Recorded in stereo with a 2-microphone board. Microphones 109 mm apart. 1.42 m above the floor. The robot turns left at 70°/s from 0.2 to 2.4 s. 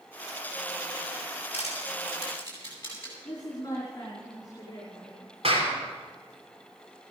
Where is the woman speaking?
40° left (ahead or behind), 4.5 m.